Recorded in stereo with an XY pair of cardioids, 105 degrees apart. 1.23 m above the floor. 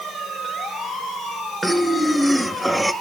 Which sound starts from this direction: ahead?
Breathing, at 1.6 s.